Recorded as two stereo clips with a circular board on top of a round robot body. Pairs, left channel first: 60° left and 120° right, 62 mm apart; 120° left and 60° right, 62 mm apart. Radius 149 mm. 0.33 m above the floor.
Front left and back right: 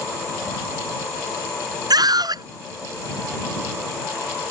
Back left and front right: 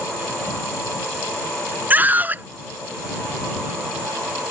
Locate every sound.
1.9 s a scream: 125° right